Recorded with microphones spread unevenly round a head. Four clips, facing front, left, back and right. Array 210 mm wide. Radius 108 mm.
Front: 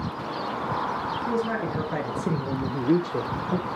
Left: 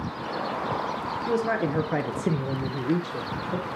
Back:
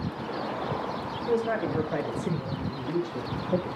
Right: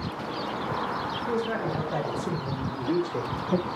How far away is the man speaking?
About 1.9 m.